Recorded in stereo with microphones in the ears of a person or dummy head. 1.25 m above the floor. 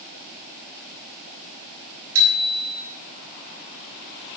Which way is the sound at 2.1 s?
85° right.